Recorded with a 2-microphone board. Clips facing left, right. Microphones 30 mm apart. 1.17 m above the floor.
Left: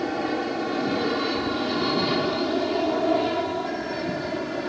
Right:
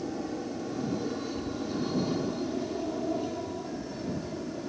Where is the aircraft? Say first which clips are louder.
Left 8 dB; 70° left (ahead or behind); by 4.7 s 65° left (ahead or behind).